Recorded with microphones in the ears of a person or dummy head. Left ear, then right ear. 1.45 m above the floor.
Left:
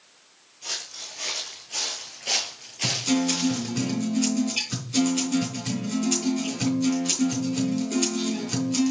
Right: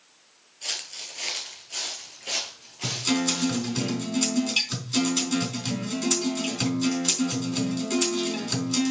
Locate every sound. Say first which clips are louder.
0.6 s footsteps: right 1 dB; 25° right (ahead or behind), 1.7 m; by 3.7 s 30° left (ahead or behind), 2.0 m
2.8 s a guitar: left 1 dB; 30° right (ahead or behind), 4 m